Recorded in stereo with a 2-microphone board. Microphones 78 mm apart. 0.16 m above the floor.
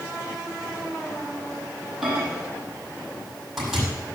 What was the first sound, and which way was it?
A microwave, 5° right (ahead or behind).